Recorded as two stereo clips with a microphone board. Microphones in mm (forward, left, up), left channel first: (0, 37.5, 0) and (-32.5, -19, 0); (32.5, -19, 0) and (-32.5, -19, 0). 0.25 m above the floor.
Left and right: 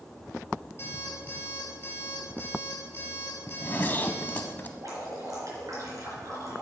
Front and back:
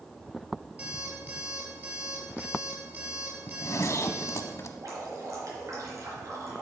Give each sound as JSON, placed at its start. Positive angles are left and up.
{"t": 0.8, "sound": "an alarm clock", "azimuth_deg": 115, "distance_m": 3.0}
{"t": 3.5, "sound": "a zipper", "azimuth_deg": 10, "distance_m": 0.7}
{"t": 4.8, "sound": "dripping", "azimuth_deg": -150, "distance_m": 4.0}